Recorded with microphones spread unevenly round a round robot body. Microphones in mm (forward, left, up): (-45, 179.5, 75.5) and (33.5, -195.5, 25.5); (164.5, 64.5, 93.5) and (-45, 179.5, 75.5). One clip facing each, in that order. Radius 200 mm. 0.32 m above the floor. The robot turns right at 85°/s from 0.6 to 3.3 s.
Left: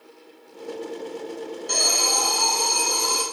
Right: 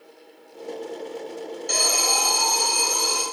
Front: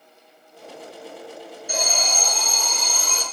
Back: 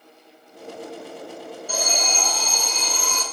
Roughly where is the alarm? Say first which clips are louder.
Right 1 dB, even; right.